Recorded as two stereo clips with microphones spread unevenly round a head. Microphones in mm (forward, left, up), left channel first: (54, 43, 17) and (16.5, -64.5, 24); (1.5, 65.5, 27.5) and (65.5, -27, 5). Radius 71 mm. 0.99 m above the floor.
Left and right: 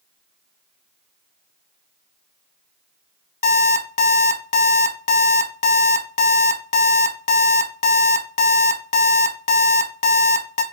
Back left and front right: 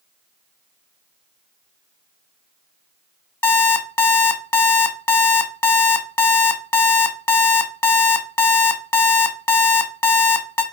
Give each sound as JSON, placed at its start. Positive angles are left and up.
{"t": 3.4, "sound": "an alarm clock", "azimuth_deg": 65, "distance_m": 0.7}